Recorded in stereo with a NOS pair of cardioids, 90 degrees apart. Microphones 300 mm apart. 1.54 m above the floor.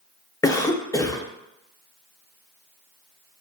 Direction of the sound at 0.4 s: 10° left.